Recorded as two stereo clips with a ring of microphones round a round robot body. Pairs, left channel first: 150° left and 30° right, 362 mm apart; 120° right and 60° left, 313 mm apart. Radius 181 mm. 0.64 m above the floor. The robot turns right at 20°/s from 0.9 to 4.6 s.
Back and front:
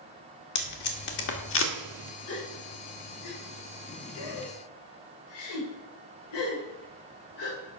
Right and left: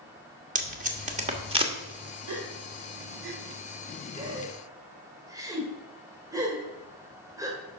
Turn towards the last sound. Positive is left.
turn(degrees=140)